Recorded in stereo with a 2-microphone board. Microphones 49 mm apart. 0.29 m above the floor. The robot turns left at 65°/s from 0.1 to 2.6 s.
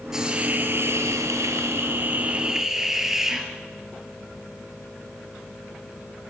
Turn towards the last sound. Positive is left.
turn(degrees=-170)